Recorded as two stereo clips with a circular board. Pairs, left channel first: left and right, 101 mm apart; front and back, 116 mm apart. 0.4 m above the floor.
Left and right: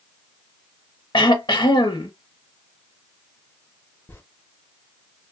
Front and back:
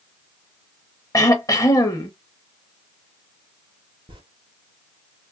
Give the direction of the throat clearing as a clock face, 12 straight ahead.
10 o'clock.